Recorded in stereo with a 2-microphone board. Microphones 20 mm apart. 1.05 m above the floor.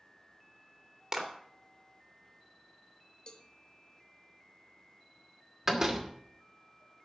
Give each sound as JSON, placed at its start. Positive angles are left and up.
{"t": 1.1, "sound": "a clap", "side_deg": -30, "distance_m": 2.5}
{"t": 3.3, "sound": "a cowbell", "side_deg": 40, "distance_m": 1.2}
{"t": 5.7, "sound": "a door slam", "side_deg": -20, "distance_m": 2.0}